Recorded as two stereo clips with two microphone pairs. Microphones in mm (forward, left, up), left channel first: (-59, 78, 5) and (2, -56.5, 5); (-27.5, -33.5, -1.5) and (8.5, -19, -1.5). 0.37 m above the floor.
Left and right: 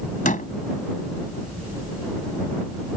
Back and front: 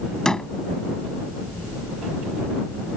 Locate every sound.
0.2 s a door slam: 130° left